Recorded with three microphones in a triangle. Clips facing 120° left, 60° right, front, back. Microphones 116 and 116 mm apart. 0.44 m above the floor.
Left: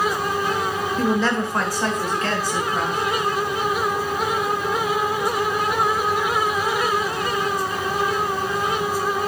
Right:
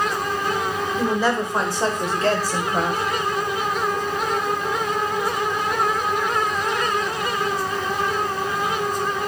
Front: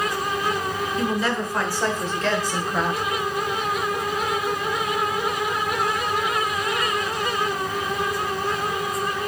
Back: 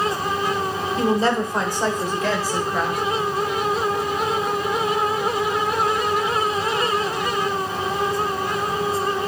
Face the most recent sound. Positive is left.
turn(degrees=-85)